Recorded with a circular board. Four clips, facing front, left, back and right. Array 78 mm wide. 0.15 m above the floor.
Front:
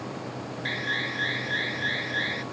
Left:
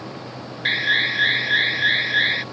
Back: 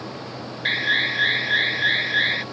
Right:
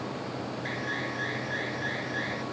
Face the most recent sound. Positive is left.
turn(degrees=125)